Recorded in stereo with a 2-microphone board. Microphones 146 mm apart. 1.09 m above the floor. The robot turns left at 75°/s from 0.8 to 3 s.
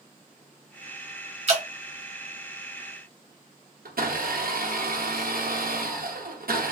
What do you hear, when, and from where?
1.5 s dripping: 50° right (ahead or behind), 1.0 m; by 1.6 s 45° right (ahead or behind), 1.0 m
3.9 s a blender: 85° right, 0.8 m